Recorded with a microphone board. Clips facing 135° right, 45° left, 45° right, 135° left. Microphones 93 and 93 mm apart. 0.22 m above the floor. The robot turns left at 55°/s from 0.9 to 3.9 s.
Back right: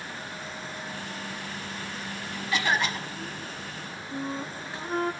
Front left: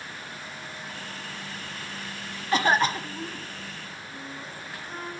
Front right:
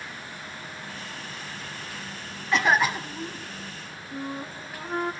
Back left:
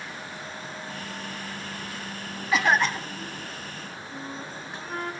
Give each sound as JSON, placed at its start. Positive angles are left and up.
{"t": 2.5, "sound": "a cough", "azimuth_deg": 50, "distance_m": 1.2}
{"t": 4.1, "sound": "a flute", "azimuth_deg": -115, "distance_m": 1.6}